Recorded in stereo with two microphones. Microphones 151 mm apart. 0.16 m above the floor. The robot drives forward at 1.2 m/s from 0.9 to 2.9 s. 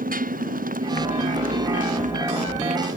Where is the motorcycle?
70° right (ahead or behind); by 3.0 s 60° right (ahead or behind).